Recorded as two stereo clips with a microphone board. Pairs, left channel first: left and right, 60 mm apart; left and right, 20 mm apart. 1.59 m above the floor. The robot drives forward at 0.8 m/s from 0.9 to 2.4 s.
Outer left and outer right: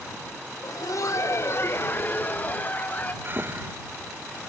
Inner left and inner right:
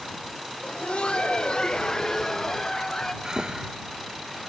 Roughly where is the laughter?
Left.